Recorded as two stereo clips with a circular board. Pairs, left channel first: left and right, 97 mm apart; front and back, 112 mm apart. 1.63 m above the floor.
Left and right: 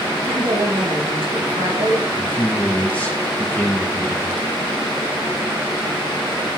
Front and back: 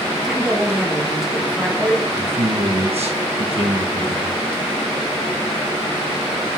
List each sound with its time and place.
0.2 s a woman speaking: 95° right, 1.4 m
2.2 s a man speaking: 160° left, 1.1 m